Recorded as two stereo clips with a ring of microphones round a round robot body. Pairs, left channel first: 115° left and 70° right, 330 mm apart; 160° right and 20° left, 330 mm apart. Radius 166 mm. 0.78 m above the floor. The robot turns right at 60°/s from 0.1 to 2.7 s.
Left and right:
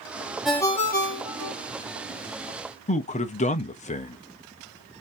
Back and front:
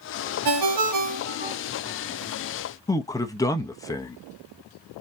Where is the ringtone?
20° left, 0.8 m; by 1.6 s 85° left, 0.8 m.